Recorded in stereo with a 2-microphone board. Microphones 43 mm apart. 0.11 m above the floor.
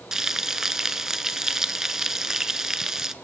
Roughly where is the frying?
Centre.